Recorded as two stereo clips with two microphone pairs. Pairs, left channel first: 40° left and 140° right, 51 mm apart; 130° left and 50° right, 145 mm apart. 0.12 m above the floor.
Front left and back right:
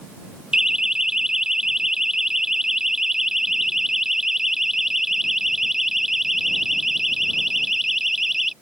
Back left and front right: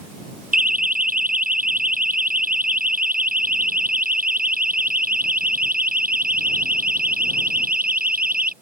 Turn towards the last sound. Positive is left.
turn(degrees=-60)